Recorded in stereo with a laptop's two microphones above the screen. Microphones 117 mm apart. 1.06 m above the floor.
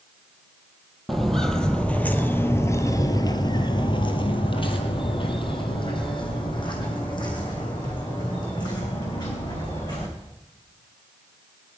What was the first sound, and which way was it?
Footsteps, centre (ahead or behind).